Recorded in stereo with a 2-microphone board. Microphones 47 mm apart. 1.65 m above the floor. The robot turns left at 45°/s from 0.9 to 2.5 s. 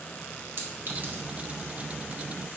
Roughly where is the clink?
Right.